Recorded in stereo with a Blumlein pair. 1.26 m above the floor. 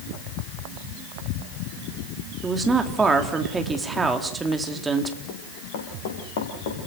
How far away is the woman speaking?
About 3.5 m.